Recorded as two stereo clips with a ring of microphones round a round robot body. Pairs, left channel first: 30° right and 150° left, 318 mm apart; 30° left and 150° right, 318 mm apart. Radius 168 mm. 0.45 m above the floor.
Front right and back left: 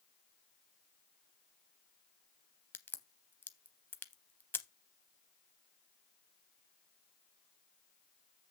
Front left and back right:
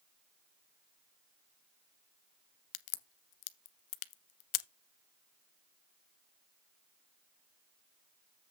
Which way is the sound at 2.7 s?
55° left.